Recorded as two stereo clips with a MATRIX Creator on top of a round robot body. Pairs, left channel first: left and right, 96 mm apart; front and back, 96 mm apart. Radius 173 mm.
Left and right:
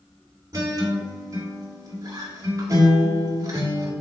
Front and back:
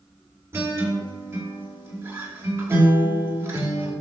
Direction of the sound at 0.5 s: 125° right.